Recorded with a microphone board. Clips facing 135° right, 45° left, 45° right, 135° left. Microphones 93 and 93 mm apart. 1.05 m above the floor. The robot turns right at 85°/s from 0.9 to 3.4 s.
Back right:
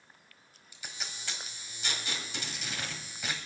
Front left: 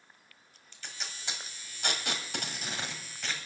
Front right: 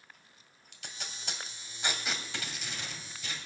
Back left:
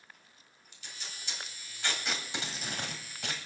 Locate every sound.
0.7 s tape being pulled: 55° right, 1.6 m; by 3.4 s 155° left, 1.6 m